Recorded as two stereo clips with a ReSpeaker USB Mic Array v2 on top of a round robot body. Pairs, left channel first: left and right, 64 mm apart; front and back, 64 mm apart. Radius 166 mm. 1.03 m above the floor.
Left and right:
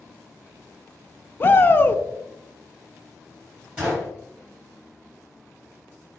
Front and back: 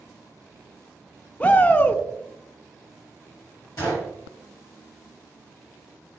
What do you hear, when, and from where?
1.4 s a shout: 55° left, 0.5 m
3.8 s a gunshot: 30° right, 1.1 m